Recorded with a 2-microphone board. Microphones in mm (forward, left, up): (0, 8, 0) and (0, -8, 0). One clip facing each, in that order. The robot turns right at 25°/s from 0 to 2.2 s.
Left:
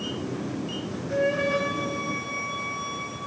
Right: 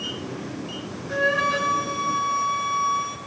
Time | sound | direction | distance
1.1 | a flute | 85° right | 2 m